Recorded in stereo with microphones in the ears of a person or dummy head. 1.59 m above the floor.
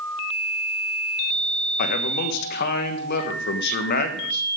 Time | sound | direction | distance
1.8 | a man speaking | 60° left (ahead or behind) | 1.4 m